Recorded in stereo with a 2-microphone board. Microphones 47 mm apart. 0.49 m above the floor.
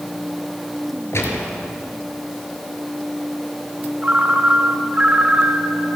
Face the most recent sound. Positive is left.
turn(degrees=-30)  # may be behind; listen again after turning